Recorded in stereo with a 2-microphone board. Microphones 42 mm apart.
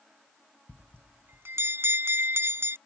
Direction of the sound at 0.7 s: 75° right (ahead or behind).